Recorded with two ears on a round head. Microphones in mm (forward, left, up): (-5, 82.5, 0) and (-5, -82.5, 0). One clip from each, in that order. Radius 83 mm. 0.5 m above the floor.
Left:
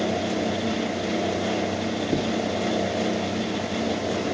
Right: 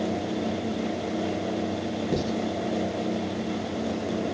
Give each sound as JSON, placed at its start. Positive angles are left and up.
{"t": 2.1, "sound": "writing", "side_deg": -40, "distance_m": 2.5}